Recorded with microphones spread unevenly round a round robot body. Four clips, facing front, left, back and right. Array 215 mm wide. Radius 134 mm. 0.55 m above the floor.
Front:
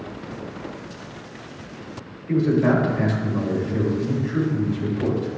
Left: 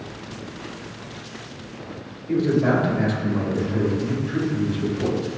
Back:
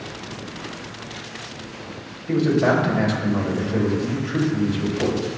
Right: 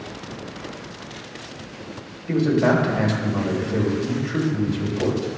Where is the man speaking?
140° right, 3 m.